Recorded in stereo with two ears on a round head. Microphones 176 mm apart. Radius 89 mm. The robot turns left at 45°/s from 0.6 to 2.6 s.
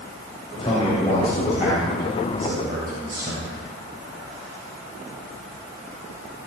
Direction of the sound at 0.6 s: 35° left.